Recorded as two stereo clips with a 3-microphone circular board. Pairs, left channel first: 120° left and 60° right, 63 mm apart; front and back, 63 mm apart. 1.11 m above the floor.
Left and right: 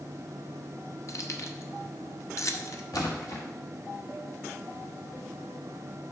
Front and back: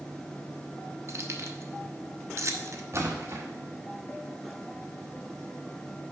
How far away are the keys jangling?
About 0.7 m.